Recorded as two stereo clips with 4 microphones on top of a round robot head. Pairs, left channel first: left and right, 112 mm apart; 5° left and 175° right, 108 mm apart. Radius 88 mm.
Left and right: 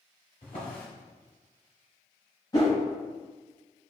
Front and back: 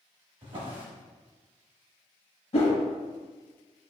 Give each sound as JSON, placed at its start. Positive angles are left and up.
{"t": 0.4, "sound": "a drawer", "azimuth_deg": 145, "distance_m": 1.5}
{"t": 2.5, "sound": "a whoosh", "azimuth_deg": 35, "distance_m": 1.0}